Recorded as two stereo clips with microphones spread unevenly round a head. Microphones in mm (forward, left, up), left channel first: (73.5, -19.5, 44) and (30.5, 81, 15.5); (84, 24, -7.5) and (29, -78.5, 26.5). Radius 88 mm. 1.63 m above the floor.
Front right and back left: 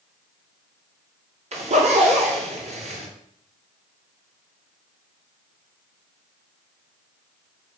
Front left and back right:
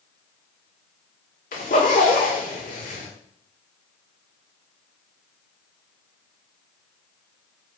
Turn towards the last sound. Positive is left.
turn(degrees=100)